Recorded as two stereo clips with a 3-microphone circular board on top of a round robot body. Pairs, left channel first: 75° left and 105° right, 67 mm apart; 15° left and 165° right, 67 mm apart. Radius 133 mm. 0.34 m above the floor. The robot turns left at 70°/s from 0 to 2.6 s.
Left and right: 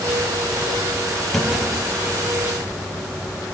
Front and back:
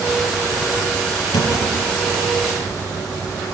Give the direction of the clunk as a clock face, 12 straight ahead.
12 o'clock.